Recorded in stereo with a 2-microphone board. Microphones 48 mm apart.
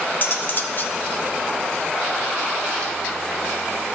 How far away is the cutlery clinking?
About 0.7 m.